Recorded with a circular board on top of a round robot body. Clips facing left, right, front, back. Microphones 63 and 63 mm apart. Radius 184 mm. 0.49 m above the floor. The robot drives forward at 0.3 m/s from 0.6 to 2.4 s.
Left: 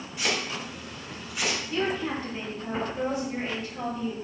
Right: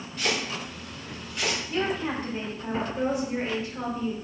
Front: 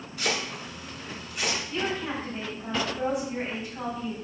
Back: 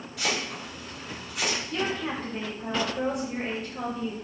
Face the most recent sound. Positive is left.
turn(degrees=-160)